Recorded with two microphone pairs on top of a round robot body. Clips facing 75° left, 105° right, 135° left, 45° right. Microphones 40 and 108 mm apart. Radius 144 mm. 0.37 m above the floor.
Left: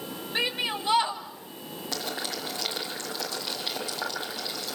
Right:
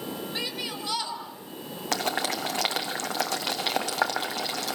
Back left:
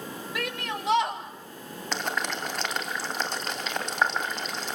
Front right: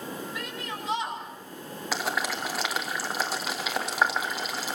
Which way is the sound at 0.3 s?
130° left.